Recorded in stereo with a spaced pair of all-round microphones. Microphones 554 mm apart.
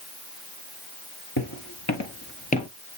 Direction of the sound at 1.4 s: 45° left (ahead or behind).